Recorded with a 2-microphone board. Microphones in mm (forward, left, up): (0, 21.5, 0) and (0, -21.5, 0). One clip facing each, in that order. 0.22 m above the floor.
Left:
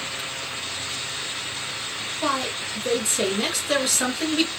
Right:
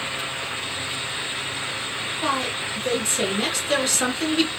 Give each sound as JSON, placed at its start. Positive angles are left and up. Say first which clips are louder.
{"t": 2.2, "sound": "a woman speaking", "louder": "even", "side_deg": 10, "distance_m": 2.5}